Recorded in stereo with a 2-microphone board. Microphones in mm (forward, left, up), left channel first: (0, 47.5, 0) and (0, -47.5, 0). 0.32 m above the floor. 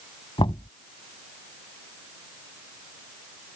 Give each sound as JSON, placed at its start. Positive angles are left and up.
{"t": 0.4, "sound": "knocking", "side_deg": 65}